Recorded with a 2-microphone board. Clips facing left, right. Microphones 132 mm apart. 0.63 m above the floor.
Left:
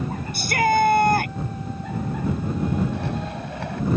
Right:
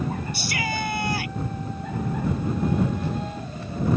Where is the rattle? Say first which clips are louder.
Left 1 dB; 75° left (ahead or behind).